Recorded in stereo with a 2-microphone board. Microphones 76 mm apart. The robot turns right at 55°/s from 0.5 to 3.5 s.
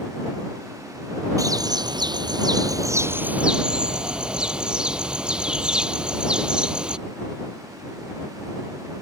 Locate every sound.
1.4 s a bird: 130° right; by 7.0 s 10° right